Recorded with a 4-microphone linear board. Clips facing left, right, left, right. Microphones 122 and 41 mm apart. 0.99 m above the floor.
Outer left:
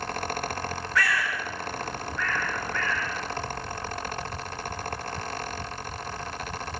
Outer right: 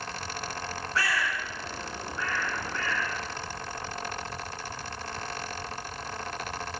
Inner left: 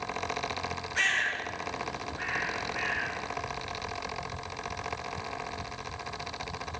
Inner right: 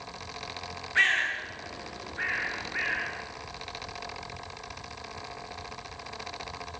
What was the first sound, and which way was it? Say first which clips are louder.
A bird: outer left 2 dB, inner right 3 dB; 30° right (ahead or behind).